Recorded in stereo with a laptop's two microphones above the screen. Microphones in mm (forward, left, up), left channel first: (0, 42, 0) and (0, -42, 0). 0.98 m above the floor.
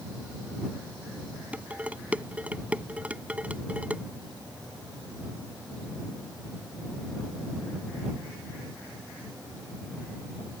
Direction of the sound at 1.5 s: 15° right (ahead or behind).